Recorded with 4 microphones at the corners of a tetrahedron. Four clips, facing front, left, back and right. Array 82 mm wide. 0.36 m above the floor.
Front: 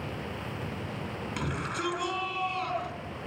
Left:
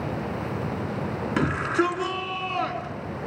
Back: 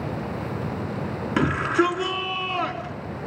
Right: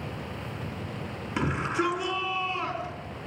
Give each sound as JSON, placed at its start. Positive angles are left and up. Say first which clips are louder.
{"t": 1.4, "sound": "a shout", "louder": "left 4 dB, back 14 dB", "azimuth_deg": 150, "distance_m": 5.0}